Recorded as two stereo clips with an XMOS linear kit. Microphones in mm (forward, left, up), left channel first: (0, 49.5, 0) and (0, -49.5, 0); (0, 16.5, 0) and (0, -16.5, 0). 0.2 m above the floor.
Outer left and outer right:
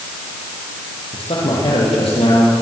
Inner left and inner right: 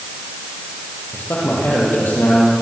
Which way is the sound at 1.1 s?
80° left.